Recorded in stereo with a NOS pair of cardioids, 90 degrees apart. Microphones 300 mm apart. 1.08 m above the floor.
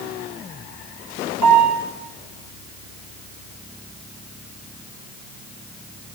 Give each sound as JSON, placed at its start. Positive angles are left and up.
{"t": 1.4, "sound": "a piano", "azimuth_deg": -65, "distance_m": 1.5}